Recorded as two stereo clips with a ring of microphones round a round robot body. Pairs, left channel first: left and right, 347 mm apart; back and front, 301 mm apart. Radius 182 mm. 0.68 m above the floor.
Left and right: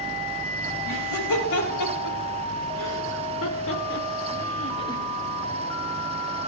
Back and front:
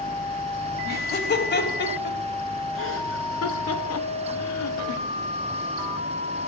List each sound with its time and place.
0.8 s laughter: 125° left, 4.5 m; by 5.0 s 170° left, 1.8 m